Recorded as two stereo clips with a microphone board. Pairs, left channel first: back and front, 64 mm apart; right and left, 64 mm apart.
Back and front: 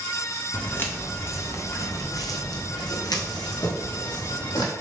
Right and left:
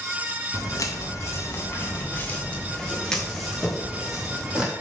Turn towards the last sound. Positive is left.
turn(degrees=170)